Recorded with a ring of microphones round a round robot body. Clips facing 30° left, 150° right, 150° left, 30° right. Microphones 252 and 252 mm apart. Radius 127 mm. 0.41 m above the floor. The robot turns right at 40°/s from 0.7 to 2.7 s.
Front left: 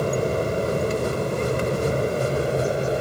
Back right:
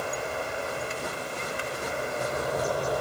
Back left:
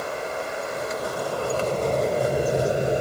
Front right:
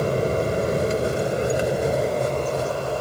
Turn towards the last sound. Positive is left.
turn(degrees=85)